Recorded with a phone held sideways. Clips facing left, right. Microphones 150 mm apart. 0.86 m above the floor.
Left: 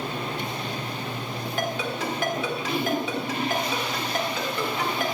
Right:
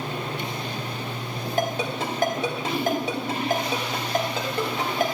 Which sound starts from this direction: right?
A ringtone, at 1.6 s.